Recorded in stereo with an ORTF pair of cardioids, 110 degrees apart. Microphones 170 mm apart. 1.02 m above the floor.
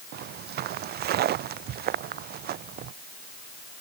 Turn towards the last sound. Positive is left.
turn(degrees=-65)